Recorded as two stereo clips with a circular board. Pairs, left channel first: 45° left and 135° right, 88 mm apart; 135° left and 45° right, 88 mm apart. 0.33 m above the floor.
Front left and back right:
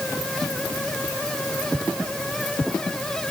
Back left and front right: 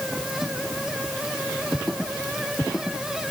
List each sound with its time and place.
Only background noise.